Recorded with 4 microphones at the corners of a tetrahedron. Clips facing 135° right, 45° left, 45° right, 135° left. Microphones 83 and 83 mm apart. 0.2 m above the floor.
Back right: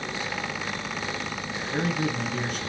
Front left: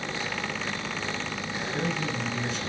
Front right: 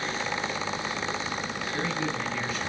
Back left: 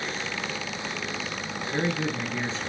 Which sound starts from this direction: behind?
A man speaking, at 1.7 s.